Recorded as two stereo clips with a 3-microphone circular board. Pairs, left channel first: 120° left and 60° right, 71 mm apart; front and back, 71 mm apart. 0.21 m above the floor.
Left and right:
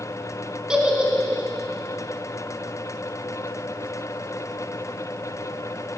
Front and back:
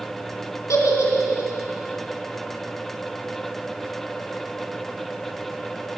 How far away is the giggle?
About 1.6 m.